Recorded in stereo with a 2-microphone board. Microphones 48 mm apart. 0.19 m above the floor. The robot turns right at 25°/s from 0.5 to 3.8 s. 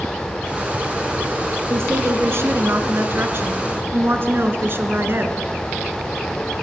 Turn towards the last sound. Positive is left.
turn(degrees=-65)